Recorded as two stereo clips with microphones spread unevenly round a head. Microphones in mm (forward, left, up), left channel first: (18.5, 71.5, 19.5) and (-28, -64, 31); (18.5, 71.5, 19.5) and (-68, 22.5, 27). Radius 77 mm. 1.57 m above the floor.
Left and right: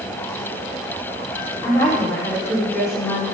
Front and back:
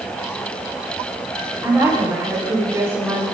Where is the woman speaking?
140° left, 7 m; by 3.2 s 145° left, 6 m.